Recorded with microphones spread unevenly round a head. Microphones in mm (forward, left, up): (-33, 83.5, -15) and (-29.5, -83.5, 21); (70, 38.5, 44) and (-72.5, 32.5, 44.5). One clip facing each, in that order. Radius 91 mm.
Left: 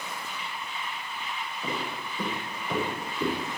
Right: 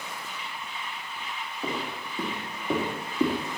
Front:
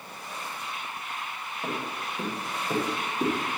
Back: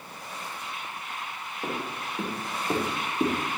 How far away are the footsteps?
About 5 m.